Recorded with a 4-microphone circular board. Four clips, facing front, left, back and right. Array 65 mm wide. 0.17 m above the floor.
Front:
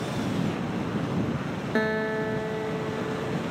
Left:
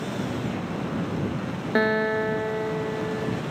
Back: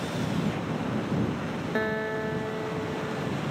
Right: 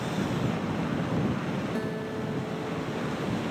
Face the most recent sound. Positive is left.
turn(degrees=85)